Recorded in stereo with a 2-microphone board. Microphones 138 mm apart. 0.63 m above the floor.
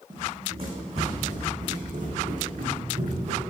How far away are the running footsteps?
About 2 m.